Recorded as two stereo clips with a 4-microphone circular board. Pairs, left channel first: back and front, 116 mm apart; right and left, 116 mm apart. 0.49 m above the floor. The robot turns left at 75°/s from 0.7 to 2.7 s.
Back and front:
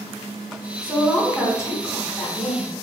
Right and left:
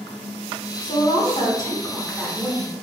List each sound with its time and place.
0.8 s a woman speaking: 65° right, 1.0 m; by 2.7 s 155° left, 1.0 m